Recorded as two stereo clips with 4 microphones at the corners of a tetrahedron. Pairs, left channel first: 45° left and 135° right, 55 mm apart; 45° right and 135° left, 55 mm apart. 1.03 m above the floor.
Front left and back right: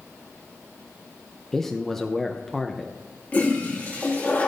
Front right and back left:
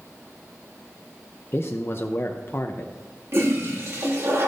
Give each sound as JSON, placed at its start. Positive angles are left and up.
{"t": 1.5, "sound": "a man speaking", "azimuth_deg": -35, "distance_m": 0.6}
{"t": 3.3, "sound": "a toilet flushing", "azimuth_deg": 105, "distance_m": 2.0}